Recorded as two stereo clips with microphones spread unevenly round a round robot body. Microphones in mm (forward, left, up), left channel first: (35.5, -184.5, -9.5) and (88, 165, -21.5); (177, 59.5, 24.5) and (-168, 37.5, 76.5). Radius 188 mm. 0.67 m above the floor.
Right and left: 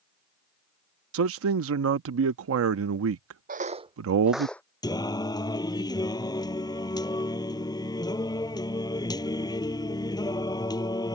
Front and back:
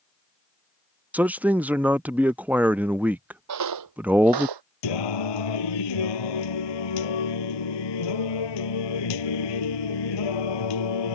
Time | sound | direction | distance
1.1 | a man speaking | 90° left | ?
3.5 | footsteps | 150° left | ?
4.8 | singing | 20° right | ?